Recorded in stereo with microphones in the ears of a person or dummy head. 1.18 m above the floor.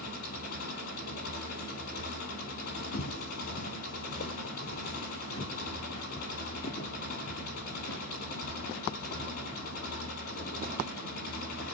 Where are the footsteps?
60° left (ahead or behind), 2.5 m; by 11.7 s 15° left (ahead or behind), 9 m.